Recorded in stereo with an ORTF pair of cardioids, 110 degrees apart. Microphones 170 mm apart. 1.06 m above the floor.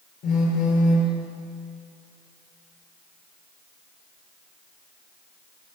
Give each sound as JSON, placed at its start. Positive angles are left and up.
{"t": 0.2, "sound": "a phone buzzing", "azimuth_deg": 60, "distance_m": 4.0}